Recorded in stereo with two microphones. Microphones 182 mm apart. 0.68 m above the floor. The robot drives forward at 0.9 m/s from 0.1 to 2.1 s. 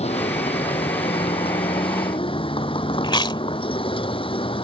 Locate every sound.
0.0 s a vehicle: 35° left (ahead or behind); by 4.7 s 30° left (ahead or behind)
3.0 s chewing: 25° left (ahead or behind)